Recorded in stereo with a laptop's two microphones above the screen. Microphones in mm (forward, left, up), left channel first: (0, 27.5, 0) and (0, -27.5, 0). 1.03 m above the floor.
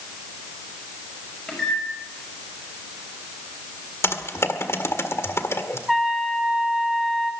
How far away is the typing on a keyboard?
About 1.8 m.